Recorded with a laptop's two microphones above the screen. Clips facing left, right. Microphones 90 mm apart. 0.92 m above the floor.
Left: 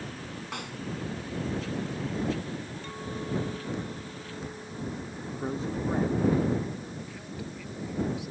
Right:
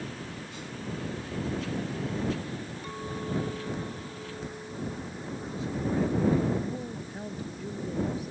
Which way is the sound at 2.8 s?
15° right (ahead or behind).